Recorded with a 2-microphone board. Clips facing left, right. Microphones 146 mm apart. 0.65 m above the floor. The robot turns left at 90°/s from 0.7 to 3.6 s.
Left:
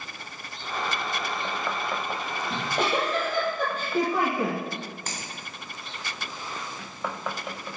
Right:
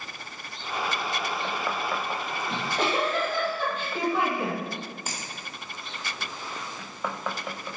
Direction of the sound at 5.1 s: 10° right (ahead or behind).